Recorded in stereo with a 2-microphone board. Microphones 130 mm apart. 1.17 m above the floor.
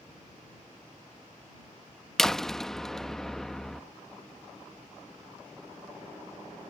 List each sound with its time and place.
2.2 s a door slam: 5° left (ahead or behind)